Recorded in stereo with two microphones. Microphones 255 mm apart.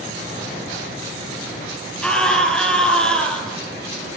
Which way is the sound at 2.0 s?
5° left (ahead or behind).